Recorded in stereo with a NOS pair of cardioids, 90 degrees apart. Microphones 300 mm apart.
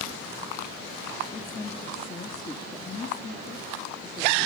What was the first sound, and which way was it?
A woman speaking, 30° left.